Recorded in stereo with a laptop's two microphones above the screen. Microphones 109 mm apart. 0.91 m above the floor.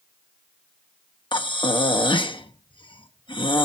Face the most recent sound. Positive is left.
turn(degrees=50)  # may be behind; listen again after turning